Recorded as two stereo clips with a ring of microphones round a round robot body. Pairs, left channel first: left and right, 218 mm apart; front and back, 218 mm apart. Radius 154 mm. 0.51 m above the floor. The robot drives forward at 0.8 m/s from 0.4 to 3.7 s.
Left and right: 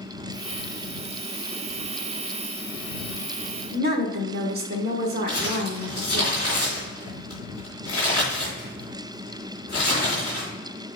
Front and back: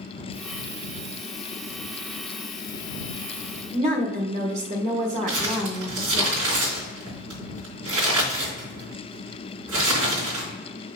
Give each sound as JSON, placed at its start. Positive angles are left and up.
{"t": 3.7, "sound": "a woman speaking", "azimuth_deg": -125, "distance_m": 1.2}
{"t": 5.3, "sound": "crumpling", "azimuth_deg": -160, "distance_m": 3.5}